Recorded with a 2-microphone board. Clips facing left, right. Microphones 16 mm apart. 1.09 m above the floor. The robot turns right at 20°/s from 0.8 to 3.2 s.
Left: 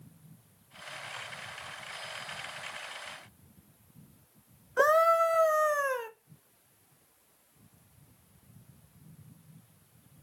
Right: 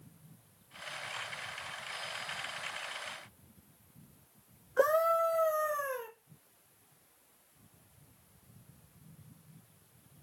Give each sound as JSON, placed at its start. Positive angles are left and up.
{"t": 4.8, "sound": "a scream", "side_deg": 30, "distance_m": 0.5}